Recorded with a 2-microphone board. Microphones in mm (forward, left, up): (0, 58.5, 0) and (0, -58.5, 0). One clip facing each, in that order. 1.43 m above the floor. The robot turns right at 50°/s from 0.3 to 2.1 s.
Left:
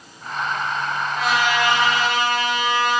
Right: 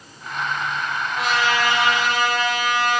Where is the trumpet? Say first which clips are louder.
Left 1 dB; straight ahead, 4 m; by 3.0 s 45° left, 4 m.